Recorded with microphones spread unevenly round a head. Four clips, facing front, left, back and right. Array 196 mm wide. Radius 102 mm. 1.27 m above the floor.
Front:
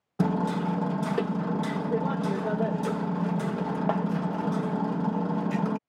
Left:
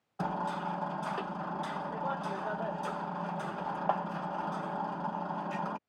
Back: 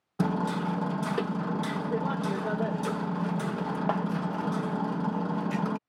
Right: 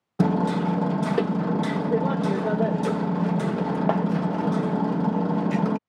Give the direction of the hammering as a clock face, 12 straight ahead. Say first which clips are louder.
Right 11 dB, front 2 dB; 3 o'clock.